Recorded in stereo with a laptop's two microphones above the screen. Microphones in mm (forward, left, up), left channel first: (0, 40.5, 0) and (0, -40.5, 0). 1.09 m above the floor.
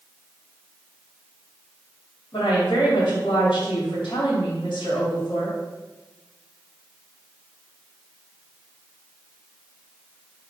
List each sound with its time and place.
2.3 s a woman speaking: 80° left, 2 m